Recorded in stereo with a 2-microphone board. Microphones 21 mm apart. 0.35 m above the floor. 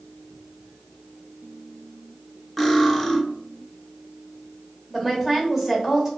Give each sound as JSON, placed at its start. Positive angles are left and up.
{"t": 2.6, "sound": "cutlery clinking", "side_deg": -5, "distance_m": 0.8}
{"t": 4.9, "sound": "a woman speaking", "side_deg": -15, "distance_m": 1.0}